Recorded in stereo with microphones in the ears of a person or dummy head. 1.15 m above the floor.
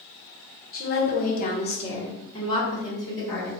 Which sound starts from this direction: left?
A woman speaking, at 0.7 s.